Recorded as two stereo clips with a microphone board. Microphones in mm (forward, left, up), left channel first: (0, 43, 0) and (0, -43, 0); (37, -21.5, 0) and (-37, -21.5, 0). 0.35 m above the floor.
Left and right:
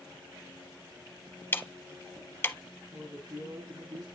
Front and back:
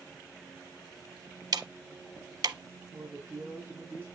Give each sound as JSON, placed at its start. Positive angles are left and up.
{"t": 1.5, "sound": "ticking", "azimuth_deg": 155, "distance_m": 0.6}
{"t": 2.9, "sound": "a woman speaking", "azimuth_deg": -125, "distance_m": 3.5}